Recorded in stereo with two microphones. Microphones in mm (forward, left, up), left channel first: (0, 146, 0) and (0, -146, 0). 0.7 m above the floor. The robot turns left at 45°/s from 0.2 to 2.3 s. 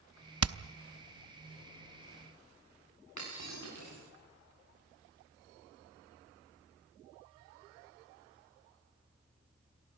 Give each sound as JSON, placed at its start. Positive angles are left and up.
{"t": 0.4, "sound": "hammering", "side_deg": -55, "distance_m": 0.7}
{"t": 3.2, "sound": "breaking glass", "side_deg": 75, "distance_m": 9.5}